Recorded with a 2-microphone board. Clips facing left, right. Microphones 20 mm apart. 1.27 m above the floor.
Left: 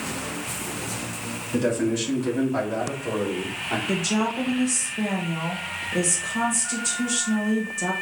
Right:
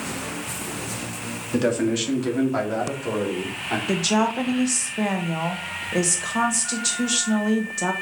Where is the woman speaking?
65° right (ahead or behind), 1.6 m.